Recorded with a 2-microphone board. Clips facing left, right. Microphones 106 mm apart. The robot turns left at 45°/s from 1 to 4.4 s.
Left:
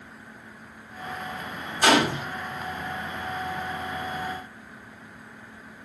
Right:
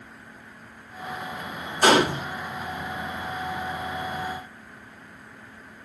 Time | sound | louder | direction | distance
1.8 | a gunshot | right 2 dB | 40° right (ahead or behind) | 1.1 m